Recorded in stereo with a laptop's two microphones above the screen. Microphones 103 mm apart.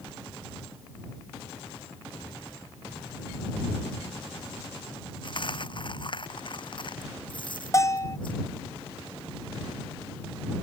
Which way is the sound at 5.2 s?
50° left (ahead or behind).